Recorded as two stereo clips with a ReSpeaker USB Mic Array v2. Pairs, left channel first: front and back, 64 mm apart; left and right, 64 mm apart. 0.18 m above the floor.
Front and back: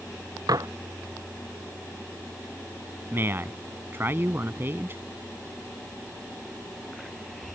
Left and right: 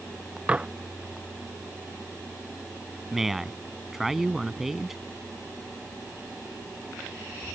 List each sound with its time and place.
0.5 s dishes clattering: 165° right
3.1 s a man speaking: 170° right